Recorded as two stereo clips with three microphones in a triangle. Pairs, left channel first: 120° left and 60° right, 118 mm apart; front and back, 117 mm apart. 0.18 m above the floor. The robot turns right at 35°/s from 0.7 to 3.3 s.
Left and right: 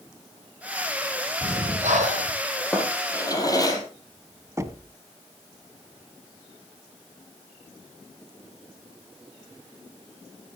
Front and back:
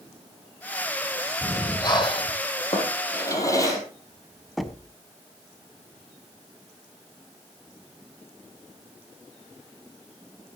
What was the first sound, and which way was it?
Breathing, 70° right.